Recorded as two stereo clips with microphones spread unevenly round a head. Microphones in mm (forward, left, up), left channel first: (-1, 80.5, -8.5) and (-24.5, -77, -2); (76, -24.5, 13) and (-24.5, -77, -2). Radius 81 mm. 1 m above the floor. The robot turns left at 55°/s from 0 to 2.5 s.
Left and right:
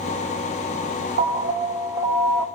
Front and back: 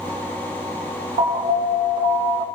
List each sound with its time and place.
1.2 s an alarm: 125° right, 1.7 m; by 2.5 s 165° left, 1.7 m